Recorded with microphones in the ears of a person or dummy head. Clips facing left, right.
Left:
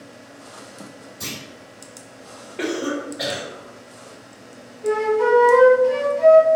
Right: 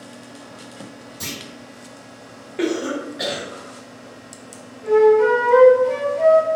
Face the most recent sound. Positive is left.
turn(degrees=-45)  # may be behind; listen again after turning